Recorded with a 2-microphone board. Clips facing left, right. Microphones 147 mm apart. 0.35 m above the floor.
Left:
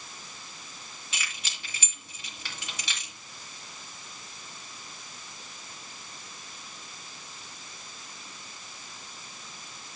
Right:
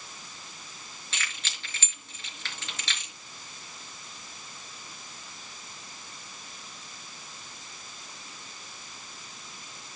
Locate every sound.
1.1 s keys jangling: 15° left (ahead or behind), 4.5 m